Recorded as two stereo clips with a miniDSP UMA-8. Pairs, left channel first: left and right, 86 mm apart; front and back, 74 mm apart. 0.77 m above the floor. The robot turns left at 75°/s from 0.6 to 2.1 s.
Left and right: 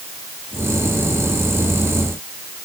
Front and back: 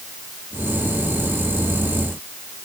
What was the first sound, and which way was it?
Only background noise.